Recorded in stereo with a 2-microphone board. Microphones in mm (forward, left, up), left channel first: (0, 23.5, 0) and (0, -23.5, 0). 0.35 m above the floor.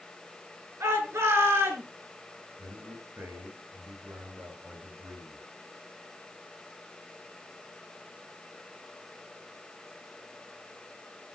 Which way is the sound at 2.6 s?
60° right (ahead or behind).